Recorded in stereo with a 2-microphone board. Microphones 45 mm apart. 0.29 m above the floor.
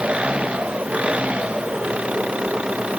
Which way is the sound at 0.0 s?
25° right (ahead or behind).